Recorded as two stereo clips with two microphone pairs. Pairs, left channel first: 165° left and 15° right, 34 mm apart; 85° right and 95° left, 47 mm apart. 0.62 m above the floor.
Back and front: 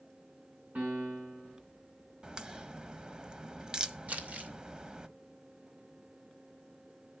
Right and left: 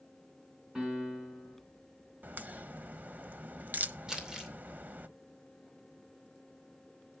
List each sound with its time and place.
0.8 s a piano: 20° left, 6 m
2.2 s a crack: 45° left, 0.9 m
4.1 s crumpling: 20° left, 2.5 m